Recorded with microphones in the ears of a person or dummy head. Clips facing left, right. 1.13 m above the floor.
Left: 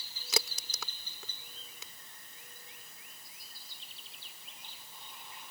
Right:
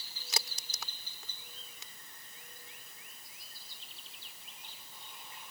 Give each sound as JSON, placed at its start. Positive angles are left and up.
{"t": 0.3, "sound": "a crack", "side_deg": 75}